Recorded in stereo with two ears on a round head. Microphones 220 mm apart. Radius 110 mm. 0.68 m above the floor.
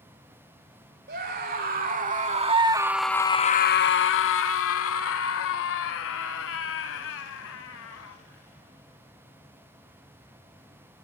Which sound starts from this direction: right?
A scream, at 1.1 s.